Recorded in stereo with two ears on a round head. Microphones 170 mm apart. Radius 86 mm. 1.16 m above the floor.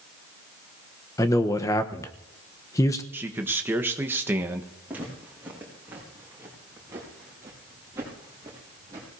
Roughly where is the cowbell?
No cowbell in this recording.